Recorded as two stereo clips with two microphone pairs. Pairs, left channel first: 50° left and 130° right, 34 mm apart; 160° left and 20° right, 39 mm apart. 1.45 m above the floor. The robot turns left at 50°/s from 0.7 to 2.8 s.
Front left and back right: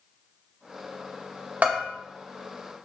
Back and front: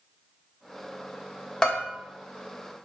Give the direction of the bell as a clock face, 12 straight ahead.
4 o'clock.